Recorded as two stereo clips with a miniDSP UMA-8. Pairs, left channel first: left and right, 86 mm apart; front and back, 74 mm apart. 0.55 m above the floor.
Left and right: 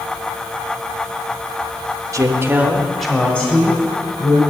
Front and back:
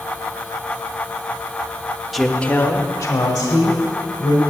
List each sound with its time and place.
2.1 s a woman speaking: 95° right, 0.9 m; by 4.4 s 30° left, 2 m